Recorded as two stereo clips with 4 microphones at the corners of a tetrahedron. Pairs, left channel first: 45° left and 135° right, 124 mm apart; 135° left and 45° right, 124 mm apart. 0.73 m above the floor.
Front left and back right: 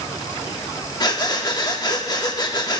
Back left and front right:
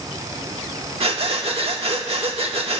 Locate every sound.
1.0 s breathing: 10° right, 1.1 m